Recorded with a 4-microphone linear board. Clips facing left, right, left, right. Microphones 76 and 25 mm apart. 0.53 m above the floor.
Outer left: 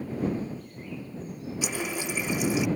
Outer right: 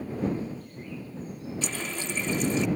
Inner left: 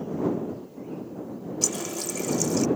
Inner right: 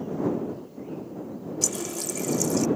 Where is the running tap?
10° left (ahead or behind).